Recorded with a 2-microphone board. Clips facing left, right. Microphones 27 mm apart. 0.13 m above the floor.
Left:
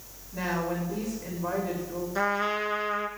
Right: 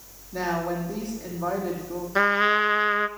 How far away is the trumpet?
About 0.8 m.